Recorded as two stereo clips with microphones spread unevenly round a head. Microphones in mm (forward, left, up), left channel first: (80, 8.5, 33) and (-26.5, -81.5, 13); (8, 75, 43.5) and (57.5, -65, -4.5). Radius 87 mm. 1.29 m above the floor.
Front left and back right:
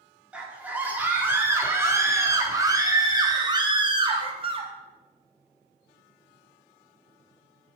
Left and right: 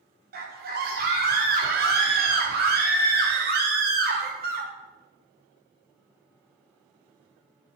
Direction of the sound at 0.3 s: 60° right.